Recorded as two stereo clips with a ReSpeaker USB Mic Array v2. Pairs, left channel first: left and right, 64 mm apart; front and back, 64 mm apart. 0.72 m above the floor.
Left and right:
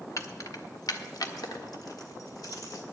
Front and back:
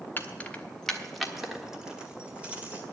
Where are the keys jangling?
60° left, 0.9 m; by 2.8 s 115° left, 2.0 m.